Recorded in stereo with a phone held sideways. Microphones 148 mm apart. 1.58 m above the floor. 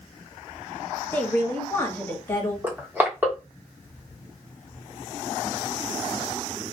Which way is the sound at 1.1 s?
15° left (ahead or behind).